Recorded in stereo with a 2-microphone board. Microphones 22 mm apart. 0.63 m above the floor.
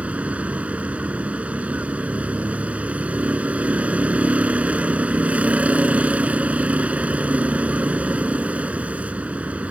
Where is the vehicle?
90° right.